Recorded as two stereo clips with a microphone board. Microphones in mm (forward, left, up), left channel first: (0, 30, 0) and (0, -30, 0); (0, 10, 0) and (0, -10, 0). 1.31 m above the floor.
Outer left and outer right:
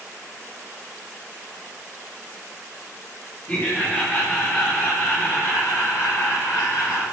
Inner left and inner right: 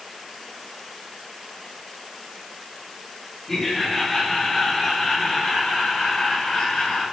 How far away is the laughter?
About 4.5 m.